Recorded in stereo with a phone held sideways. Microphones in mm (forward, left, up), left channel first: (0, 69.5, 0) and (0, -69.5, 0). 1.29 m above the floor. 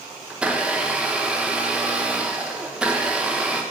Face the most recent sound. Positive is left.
turn(degrees=-10)  # may be behind; listen again after turning